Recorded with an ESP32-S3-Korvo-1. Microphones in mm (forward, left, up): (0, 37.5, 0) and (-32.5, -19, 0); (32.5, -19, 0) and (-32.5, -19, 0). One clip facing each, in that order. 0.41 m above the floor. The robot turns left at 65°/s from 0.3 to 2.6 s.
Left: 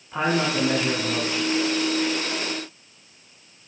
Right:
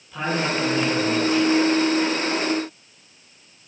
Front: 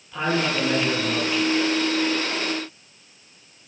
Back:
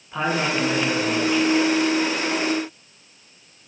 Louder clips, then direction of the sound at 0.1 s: Left 1 dB, back 1 dB; 115° left.